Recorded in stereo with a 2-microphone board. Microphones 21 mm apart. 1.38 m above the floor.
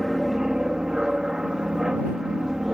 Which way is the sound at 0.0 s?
30° right (ahead or behind).